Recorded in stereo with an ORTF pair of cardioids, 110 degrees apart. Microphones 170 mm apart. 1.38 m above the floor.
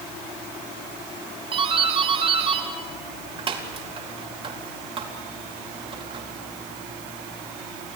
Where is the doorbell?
35° right, 4.5 m.